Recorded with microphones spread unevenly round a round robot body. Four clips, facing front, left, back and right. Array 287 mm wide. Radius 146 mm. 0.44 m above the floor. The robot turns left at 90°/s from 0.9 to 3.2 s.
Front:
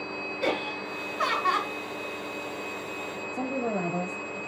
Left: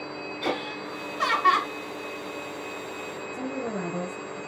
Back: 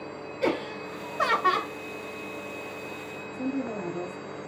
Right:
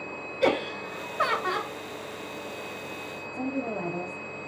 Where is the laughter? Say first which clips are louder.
Right 6 dB, back 2 dB; 120° right, 2 m; by 1.7 s 165° left, 2 m.